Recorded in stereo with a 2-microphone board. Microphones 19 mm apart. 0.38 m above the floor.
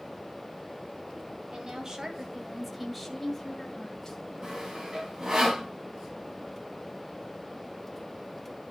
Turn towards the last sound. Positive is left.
turn(degrees=-40)  # may be behind; listen again after turning